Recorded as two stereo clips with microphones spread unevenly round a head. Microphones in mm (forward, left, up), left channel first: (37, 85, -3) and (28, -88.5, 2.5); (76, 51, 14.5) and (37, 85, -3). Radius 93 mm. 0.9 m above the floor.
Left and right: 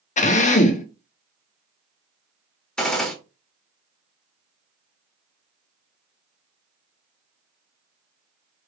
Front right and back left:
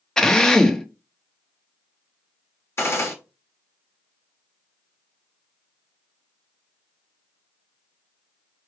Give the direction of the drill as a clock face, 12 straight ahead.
11 o'clock.